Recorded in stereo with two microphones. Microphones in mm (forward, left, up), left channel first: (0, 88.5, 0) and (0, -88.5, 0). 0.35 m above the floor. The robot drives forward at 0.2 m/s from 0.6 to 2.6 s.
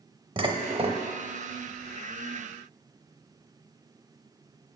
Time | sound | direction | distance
0.4 | dishes clattering | 30° right (ahead or behind) | 0.8 m